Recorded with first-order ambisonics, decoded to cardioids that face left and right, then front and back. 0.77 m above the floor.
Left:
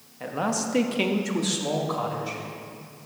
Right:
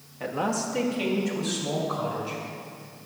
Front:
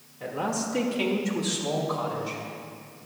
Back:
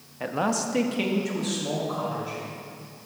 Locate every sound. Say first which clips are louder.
0.2 s a man speaking: even, back 3 dB; 165° right, 0.6 m; by 2.4 s 75° left, 1.7 m